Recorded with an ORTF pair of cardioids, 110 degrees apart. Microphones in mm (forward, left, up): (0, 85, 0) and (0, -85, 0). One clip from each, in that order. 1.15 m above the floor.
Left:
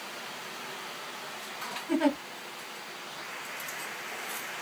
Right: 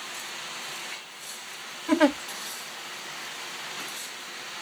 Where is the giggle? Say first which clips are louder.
Right 6 dB; 70° right, 2.5 m.